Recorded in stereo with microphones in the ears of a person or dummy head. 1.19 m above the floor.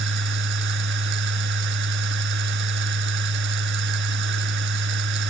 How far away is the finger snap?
I don't hear a finger snap.